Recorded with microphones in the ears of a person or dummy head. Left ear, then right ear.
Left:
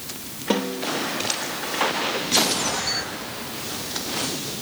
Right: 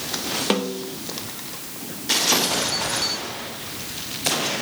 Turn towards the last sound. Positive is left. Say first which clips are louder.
# left 5 dB
turn(degrees=-30)  # may be behind; listen again after turning